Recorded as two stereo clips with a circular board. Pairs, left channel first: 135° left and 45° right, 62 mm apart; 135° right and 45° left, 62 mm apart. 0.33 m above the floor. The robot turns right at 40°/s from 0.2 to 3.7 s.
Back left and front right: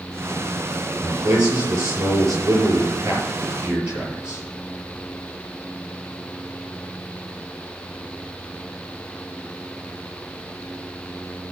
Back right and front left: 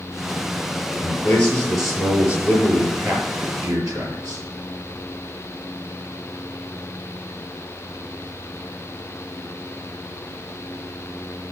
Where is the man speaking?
80° right, 6.5 m; by 4.4 s 25° left, 6.5 m.